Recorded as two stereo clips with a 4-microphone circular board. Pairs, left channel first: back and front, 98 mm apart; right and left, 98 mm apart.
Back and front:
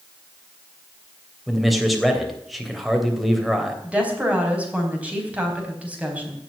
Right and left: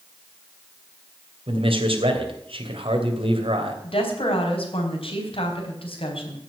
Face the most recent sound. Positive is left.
turn(degrees=-75)